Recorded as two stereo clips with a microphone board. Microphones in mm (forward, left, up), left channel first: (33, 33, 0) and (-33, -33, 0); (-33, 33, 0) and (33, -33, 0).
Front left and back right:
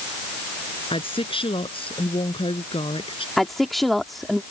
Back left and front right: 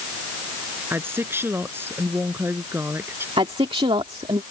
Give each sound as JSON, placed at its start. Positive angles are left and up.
{"t": 0.9, "sound": "a woman speaking", "azimuth_deg": 25}
{"t": 3.4, "sound": "a woman speaking", "azimuth_deg": -45}